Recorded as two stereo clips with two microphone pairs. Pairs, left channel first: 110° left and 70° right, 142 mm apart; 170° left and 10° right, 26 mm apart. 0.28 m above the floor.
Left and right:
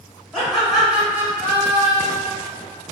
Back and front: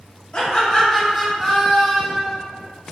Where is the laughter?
175° right, 1.2 m; by 2.3 s 55° right, 1.4 m.